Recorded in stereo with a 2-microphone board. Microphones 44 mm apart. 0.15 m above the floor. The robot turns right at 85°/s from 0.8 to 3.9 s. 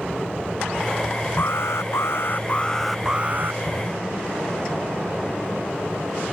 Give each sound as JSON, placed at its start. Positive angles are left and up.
{"t": 1.4, "sound": "an alarm", "azimuth_deg": 50}